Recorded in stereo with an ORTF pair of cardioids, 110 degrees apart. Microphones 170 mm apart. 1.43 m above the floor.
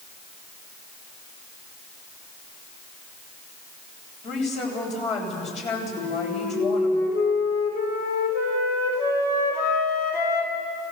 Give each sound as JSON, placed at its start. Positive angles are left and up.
{"t": 4.2, "sound": "a woman speaking", "azimuth_deg": 40, "distance_m": 8.0}
{"t": 6.0, "sound": "a flute", "azimuth_deg": 60, "distance_m": 6.0}